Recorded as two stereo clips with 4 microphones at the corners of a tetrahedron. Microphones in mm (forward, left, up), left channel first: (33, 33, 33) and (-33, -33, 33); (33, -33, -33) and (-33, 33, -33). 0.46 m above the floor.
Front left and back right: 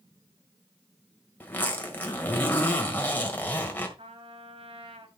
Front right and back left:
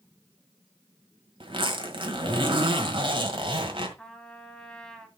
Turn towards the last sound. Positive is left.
turn(degrees=-130)